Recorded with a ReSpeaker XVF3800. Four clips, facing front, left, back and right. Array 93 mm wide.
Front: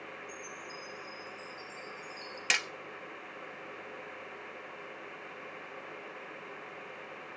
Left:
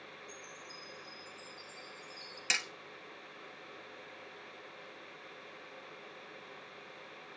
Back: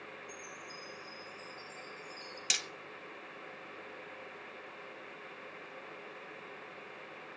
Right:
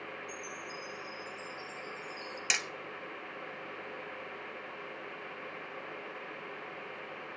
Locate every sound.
0.3 s a chime: 150° right, 9 m
2.5 s hammering: 15° right, 0.5 m